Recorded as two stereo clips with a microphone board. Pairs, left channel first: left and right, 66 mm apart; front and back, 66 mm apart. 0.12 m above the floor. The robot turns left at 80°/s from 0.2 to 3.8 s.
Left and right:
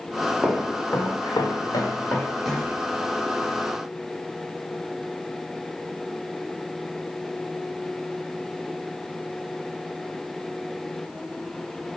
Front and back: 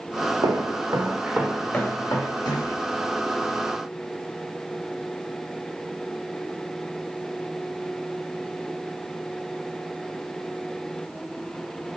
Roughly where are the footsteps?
Behind.